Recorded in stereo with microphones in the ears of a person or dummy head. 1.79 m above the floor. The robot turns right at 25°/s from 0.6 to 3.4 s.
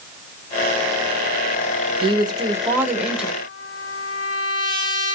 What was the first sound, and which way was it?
A woman speaking, 35° right.